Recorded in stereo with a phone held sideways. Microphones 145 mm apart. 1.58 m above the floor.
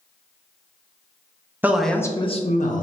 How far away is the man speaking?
About 0.6 m.